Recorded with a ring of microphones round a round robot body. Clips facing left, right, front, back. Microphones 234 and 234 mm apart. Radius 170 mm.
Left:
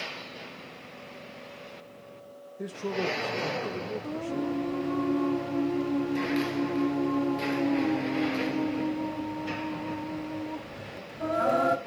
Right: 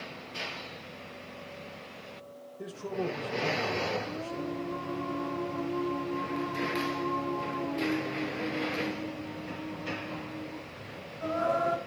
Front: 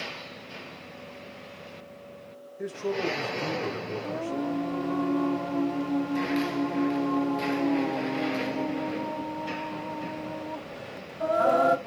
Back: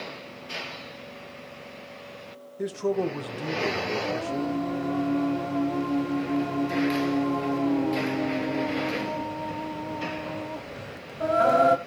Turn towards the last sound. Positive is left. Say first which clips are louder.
# left 5 dB, front 2 dB
turn(degrees=115)